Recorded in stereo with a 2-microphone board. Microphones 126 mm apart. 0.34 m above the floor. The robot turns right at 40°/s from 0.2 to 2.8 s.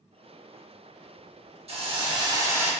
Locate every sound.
1.7 s a hiss: 60° right, 0.6 m; by 2.7 s 15° right, 0.6 m